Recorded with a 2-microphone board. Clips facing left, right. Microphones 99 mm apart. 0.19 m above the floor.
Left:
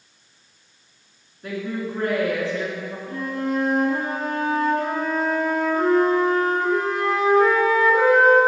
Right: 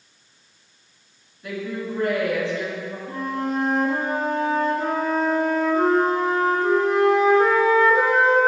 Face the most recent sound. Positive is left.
turn(degrees=-30)  # may be behind; listen again after turning